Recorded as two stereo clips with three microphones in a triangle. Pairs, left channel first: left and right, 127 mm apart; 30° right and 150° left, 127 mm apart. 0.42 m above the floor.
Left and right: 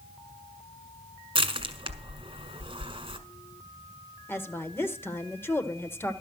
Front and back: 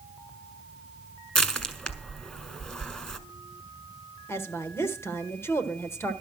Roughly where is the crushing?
Right.